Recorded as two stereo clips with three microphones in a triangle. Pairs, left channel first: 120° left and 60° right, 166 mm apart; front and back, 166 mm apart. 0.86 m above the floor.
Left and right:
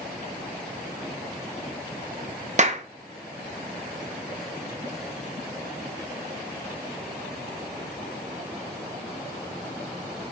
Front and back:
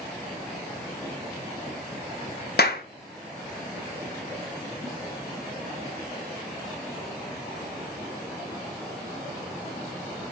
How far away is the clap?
About 0.6 m.